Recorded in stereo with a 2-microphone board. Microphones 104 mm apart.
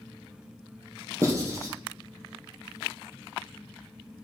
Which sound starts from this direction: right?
Writing, at 1.2 s.